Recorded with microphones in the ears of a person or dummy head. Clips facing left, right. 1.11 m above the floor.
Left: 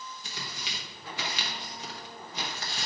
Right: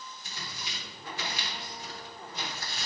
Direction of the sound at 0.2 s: 50° left (ahead or behind).